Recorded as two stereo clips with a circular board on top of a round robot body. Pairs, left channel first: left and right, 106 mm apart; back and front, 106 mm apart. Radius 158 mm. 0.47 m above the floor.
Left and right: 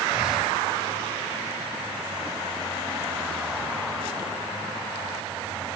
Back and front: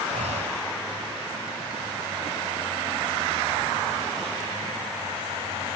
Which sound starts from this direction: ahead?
Breathing, at 0.1 s.